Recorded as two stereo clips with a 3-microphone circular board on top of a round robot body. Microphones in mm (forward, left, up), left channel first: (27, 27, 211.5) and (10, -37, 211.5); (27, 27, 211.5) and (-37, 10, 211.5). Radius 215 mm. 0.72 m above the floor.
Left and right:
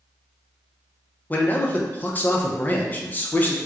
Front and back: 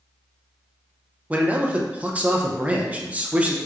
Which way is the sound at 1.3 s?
130° left.